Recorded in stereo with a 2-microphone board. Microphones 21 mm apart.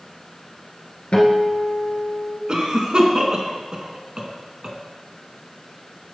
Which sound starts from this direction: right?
A cough, at 2.5 s.